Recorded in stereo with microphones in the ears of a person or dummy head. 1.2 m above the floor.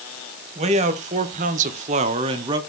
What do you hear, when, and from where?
0.6 s a man speaking: 30° right (ahead or behind), 1.0 m; by 2.6 s 20° right (ahead or behind), 0.7 m